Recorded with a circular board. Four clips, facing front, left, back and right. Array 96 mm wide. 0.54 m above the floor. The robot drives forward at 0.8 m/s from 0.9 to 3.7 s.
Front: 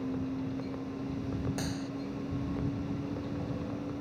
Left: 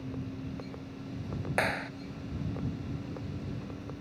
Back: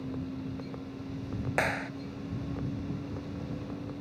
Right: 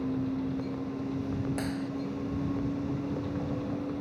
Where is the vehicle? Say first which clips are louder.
Right 9 dB, front 3 dB; 65° right; by 4.0 s 70° right.